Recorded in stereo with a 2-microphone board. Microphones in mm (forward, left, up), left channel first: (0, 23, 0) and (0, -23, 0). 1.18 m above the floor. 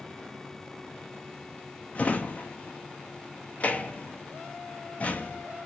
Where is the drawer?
30° left (ahead or behind), 0.7 m.